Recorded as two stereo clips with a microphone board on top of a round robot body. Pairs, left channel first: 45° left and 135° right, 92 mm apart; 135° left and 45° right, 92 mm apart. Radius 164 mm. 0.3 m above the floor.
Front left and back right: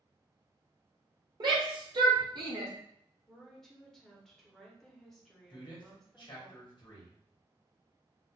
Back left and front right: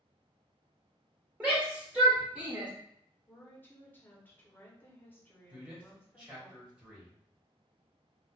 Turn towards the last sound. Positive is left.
turn(degrees=30)